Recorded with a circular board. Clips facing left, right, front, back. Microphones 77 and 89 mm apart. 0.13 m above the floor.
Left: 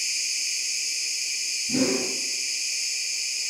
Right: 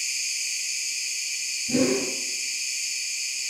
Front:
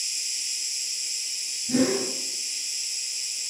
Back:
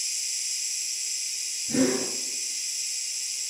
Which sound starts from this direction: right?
A whoosh, at 1.7 s.